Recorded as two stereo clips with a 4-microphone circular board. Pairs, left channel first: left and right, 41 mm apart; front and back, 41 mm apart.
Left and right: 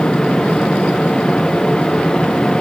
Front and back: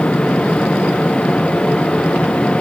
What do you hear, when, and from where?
Only background noise.